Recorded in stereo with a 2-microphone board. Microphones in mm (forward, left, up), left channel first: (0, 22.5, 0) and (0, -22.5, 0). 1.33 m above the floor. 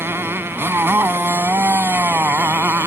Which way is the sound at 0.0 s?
60° right (ahead or behind).